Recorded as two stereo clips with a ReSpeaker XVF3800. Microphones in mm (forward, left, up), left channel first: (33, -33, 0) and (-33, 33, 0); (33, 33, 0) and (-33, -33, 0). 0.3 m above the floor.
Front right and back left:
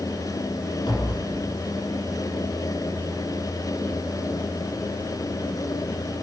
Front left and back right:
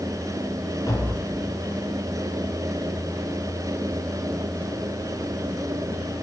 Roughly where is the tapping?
Ahead.